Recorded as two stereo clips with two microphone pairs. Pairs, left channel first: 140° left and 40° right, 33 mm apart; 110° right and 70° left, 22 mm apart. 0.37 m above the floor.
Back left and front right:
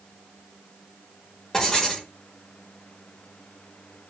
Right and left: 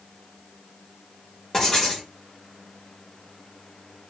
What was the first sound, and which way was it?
Writing, 160° right.